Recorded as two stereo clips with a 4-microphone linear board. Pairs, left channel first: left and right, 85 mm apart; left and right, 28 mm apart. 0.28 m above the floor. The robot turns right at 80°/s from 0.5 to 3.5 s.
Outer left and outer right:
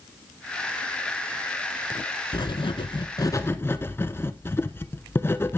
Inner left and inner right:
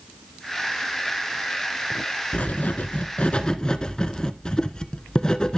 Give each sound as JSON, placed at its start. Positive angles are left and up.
{"t": 2.3, "sound": "writing", "azimuth_deg": 60, "distance_m": 0.7}